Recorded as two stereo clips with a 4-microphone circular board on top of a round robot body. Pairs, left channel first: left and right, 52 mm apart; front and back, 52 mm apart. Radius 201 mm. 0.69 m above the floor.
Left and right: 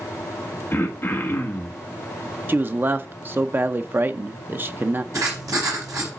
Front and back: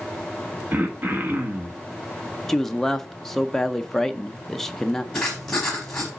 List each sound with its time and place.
0.7 s throat clearing: 130° left, 1.7 m
2.5 s a man speaking: 80° right, 0.7 m
5.1 s writing: 80° right, 0.7 m